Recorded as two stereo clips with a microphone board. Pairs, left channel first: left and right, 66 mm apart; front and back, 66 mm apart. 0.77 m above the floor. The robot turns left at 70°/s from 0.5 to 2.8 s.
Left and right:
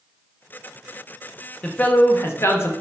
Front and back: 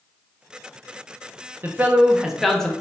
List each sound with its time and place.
1.6 s a man speaking: 145° left, 0.6 m; by 2.7 s 70° left, 0.6 m